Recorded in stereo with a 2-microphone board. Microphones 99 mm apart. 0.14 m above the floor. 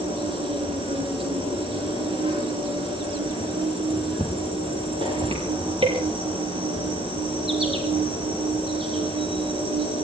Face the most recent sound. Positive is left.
turn(degrees=-70)  # may be behind; listen again after turning